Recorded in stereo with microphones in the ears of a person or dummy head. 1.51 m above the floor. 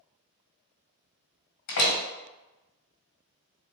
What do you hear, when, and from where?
1.7 s a door slam: 55° left (ahead or behind), 1.5 m